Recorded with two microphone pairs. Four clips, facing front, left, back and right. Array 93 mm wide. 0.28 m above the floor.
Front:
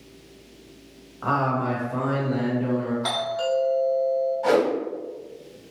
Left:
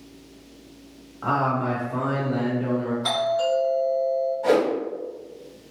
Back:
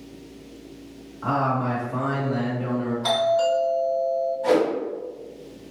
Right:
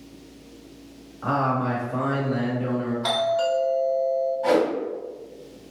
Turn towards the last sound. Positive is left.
turn(degrees=-15)